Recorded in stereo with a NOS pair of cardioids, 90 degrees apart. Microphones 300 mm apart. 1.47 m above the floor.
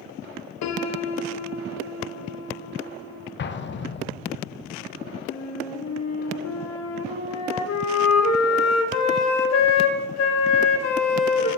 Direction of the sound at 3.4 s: 40° left.